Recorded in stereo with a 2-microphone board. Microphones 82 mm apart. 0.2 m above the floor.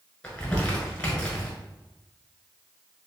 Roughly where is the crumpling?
Centre.